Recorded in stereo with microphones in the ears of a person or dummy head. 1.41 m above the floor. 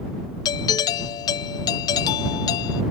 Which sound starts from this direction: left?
A doorbell, at 0.5 s.